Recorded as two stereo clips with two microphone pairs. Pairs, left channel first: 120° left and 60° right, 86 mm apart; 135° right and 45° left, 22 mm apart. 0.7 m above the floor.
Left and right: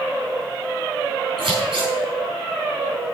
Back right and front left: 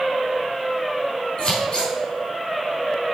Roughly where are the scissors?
Right.